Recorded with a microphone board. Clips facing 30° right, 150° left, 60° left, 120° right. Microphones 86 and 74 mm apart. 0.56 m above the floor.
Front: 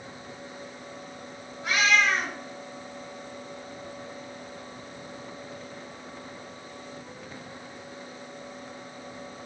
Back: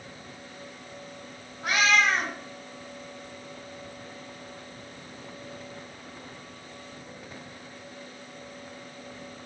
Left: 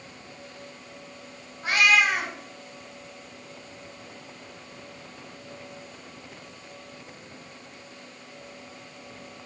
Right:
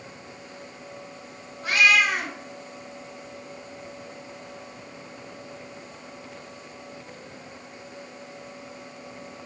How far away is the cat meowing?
About 1.7 m.